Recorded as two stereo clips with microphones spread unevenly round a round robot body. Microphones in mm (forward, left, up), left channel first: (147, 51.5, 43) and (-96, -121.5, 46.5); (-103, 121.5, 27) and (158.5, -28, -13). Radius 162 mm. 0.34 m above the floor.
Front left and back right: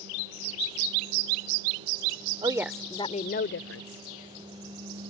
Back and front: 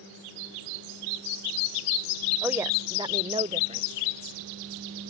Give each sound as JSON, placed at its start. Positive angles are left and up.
{"t": 2.4, "sound": "a woman speaking", "azimuth_deg": -95}